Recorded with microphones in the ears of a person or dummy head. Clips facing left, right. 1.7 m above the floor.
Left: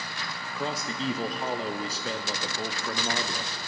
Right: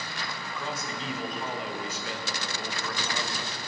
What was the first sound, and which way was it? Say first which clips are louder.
A man speaking: left 5 dB; 35° left (ahead or behind).